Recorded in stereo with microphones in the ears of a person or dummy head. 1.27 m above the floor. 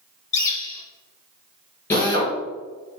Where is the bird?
20° left (ahead or behind), 1.7 m.